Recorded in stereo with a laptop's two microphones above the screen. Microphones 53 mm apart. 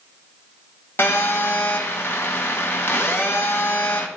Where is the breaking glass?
No breaking glass in this recording.